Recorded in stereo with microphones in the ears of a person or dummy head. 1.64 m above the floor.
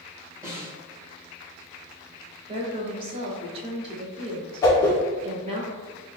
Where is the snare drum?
25° right (ahead or behind), 1.6 m.